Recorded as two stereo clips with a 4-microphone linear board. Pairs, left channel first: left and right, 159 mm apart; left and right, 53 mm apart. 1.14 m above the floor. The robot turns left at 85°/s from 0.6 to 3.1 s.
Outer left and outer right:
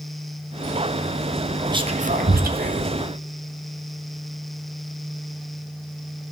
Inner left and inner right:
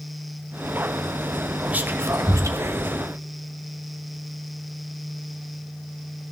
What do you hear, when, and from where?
1.7 s whispering: 25° right (ahead or behind), 0.6 m; by 3.0 s 40° right (ahead or behind), 0.6 m